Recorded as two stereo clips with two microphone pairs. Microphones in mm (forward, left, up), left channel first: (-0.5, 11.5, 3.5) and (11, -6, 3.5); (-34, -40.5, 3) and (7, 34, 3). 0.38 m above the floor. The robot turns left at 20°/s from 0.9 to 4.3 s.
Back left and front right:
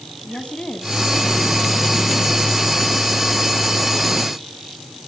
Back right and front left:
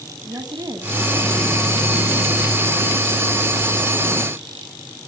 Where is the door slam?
No door slam in this recording.